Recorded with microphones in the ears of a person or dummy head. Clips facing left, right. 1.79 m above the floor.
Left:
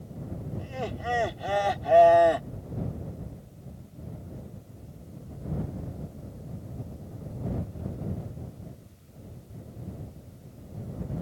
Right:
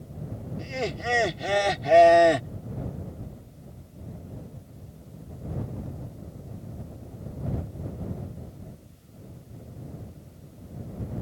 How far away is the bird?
No bird in this recording.